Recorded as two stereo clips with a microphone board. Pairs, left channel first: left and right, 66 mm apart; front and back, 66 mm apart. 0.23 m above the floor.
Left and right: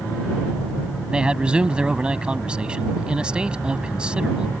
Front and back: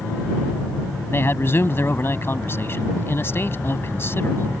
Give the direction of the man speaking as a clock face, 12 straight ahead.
1 o'clock.